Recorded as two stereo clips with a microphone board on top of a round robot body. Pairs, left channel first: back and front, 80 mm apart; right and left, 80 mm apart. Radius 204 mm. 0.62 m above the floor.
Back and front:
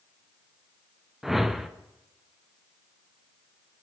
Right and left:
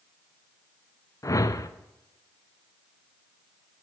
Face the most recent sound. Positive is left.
turn(degrees=-85)